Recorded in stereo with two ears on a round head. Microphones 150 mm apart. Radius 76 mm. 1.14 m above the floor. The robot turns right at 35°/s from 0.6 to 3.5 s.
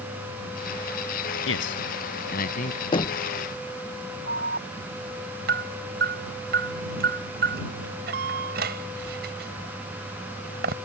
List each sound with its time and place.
1.5 s a man speaking: 90° left; by 2.8 s 45° left (ahead or behind)
2.9 s knocking: 30° left (ahead or behind); by 3.3 s 20° left (ahead or behind)
4.3 s an alarm: 55° right (ahead or behind)